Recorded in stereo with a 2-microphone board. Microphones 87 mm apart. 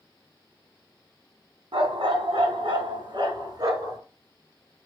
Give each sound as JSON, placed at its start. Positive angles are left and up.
{"t": 1.7, "sound": "a dog barking", "side_deg": -80, "distance_m": 1.2}